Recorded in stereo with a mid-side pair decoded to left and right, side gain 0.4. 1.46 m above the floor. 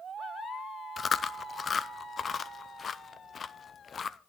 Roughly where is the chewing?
Ahead left.